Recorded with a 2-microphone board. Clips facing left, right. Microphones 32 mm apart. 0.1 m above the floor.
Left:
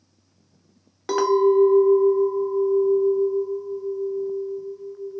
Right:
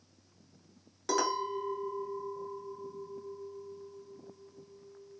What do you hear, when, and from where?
1.1 s a clink: 25° left (ahead or behind), 0.7 m